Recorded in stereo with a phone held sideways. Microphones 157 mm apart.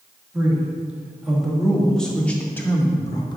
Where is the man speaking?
10° right (ahead or behind), 2.5 m; by 3.4 s 25° left (ahead or behind), 1.1 m.